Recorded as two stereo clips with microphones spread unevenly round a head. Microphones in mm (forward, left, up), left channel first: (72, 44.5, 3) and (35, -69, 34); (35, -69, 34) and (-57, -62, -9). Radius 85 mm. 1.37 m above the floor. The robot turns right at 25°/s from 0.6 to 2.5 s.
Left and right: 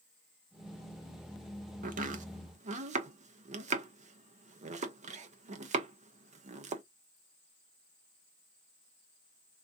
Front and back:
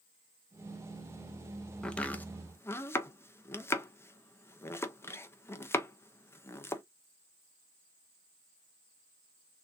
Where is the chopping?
95° right, 0.7 m; by 6.8 s 80° right, 0.7 m.